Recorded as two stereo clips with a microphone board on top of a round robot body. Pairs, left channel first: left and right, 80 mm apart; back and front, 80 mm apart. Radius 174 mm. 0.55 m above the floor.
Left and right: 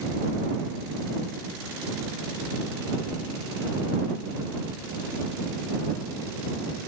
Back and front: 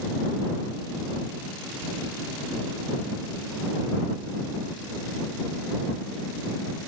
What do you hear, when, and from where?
Only background noise.